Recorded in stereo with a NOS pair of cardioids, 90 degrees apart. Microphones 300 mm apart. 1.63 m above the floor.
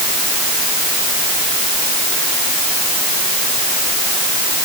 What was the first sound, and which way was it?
Only background noise.